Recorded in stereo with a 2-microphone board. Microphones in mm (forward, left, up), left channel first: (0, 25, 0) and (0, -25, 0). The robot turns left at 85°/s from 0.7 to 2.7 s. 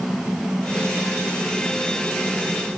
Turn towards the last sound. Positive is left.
No sound to turn to.